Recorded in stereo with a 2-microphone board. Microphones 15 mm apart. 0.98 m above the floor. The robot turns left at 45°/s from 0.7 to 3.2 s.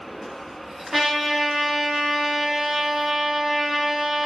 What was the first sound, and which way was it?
A trumpet, 25° right.